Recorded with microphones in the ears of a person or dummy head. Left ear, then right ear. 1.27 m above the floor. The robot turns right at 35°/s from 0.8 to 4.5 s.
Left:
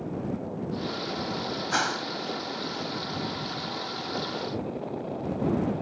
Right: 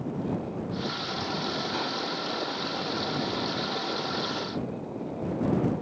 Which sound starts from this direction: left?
A whoosh, at 1.7 s.